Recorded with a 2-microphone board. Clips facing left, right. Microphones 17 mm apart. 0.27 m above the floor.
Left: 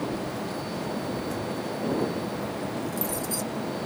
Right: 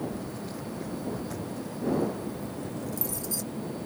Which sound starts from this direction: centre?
Keys jangling, at 0.1 s.